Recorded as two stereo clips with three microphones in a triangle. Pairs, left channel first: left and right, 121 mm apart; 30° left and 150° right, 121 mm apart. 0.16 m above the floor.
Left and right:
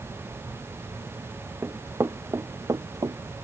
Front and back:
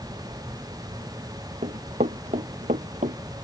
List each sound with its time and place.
1.6 s running footsteps: 160° right; by 3.2 s 150° right